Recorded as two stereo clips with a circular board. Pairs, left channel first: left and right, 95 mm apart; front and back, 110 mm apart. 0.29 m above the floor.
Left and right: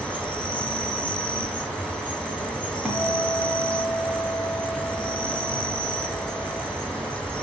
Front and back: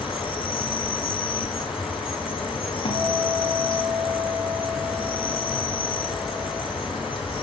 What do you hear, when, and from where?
0.0 s an insect: 15° left, 2 m
2.9 s a guitar: 15° right, 1.6 m